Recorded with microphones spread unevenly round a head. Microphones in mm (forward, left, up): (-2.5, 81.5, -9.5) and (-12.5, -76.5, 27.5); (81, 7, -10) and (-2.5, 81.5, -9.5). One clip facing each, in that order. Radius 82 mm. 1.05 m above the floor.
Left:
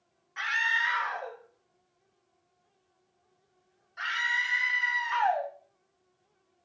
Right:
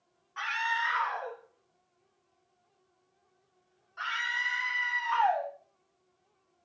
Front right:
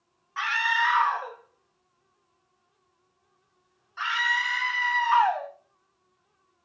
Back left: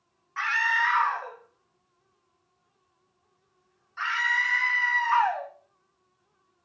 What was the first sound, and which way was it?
A scream, 30° left.